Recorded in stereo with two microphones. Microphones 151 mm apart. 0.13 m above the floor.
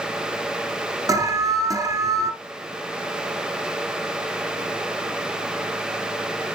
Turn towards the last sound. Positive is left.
turn(degrees=-25)  # may be behind; listen again after turning